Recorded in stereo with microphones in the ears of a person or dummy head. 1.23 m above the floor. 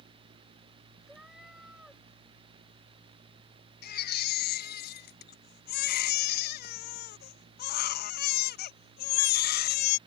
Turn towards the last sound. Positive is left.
turn(degrees=50)  # may be behind; listen again after turning